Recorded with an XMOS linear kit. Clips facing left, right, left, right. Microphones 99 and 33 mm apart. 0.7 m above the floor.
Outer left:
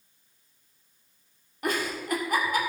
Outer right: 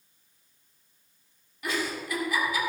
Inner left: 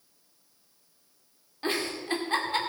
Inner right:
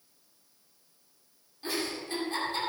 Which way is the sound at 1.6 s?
50° left (ahead or behind).